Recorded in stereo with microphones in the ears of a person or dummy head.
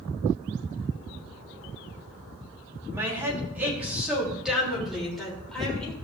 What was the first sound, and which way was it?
A woman speaking, 15° right (ahead or behind).